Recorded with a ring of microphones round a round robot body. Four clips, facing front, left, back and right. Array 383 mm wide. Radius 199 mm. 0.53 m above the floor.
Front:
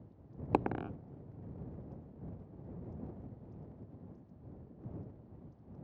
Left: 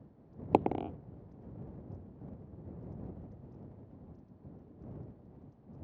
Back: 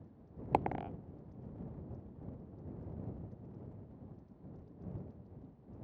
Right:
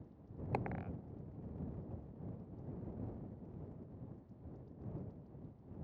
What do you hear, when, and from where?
0.5 s a dropped coin: 70° left